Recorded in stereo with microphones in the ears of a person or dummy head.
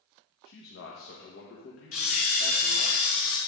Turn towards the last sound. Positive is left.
turn(degrees=45)  # may be behind; listen again after turning